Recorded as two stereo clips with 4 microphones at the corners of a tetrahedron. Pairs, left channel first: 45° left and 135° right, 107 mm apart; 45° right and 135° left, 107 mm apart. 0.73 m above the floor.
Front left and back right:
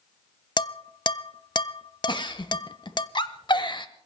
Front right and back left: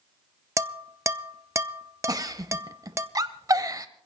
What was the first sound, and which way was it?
Dishes clattering, 80° left.